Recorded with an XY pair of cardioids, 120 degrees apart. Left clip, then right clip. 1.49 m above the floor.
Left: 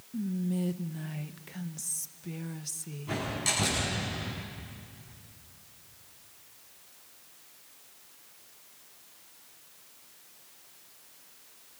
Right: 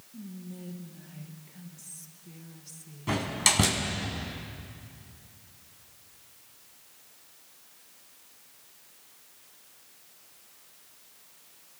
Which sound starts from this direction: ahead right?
A door slam, at 3.1 s.